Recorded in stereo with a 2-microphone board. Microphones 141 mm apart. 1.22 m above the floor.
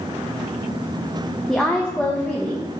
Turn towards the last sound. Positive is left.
turn(degrees=10)  # may be behind; listen again after turning